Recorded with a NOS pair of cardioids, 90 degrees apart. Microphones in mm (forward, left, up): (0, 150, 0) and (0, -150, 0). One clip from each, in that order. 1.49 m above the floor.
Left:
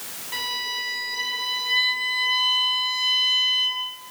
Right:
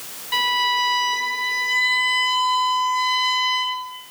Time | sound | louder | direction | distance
0.3 | a violin | right 8 dB | 45° right | 3 m